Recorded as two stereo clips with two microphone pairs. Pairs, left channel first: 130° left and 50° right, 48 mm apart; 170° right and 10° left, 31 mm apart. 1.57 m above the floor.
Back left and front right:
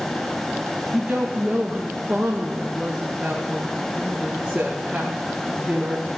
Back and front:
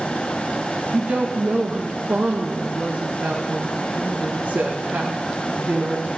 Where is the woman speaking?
15° left, 2.0 m.